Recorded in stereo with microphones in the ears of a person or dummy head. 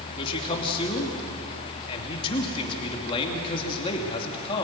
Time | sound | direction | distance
0.1 | a man speaking | 30° left (ahead or behind) | 3 m